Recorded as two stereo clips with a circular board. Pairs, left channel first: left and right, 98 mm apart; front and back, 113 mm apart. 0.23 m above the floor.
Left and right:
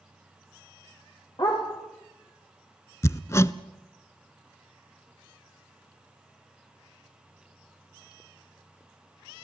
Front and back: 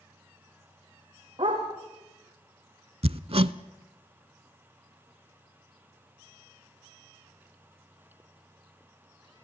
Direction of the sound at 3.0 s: 150° left.